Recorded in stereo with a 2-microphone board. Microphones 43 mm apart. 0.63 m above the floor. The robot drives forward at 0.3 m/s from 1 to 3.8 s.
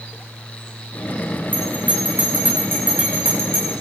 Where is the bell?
45° right (ahead or behind), 10 m.